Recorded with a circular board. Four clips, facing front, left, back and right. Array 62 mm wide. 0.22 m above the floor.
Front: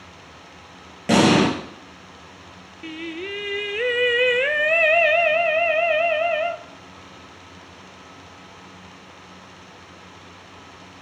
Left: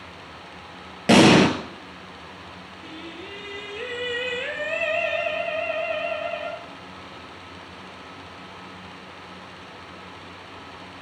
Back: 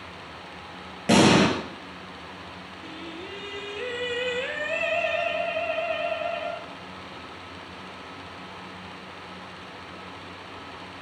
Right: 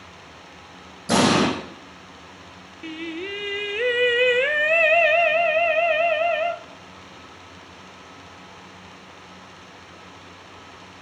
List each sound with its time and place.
1.1 s an explosion: 95° left, 2.5 m
2.8 s singing: 40° right, 0.9 m